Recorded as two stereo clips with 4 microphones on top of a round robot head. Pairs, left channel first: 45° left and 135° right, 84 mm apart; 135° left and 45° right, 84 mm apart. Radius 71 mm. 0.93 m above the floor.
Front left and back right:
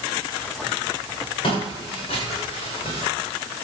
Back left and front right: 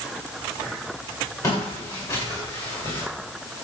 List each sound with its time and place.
1.4 s footsteps: 80° left, 9 m; by 3.0 s 75° left, 8 m